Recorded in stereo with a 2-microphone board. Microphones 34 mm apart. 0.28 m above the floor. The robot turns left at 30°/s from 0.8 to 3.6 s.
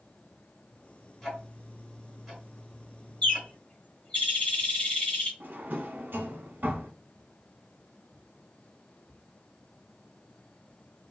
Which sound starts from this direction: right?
A drawer, at 5.4 s.